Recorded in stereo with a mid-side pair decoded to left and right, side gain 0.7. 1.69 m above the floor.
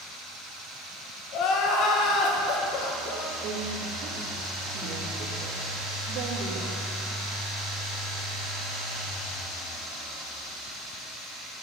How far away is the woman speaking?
About 2.5 m.